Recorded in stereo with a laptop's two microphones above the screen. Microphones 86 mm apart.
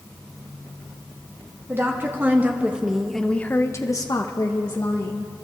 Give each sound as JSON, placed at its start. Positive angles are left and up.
{"t": 1.7, "sound": "a woman speaking", "side_deg": -25, "distance_m": 1.7}